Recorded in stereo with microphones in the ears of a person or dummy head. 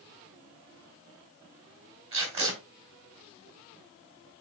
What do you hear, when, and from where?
2.1 s tape being pulled: 30° right (ahead or behind), 3 m